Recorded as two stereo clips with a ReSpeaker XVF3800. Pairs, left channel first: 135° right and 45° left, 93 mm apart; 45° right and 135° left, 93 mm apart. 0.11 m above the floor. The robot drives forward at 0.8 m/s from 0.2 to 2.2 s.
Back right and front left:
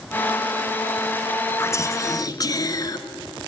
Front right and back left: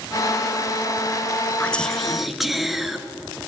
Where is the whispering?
110° right, 1.3 m; by 3.0 s 140° right, 1.4 m.